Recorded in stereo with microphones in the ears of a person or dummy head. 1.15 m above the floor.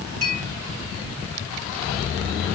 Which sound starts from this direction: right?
A clink, at 0.2 s.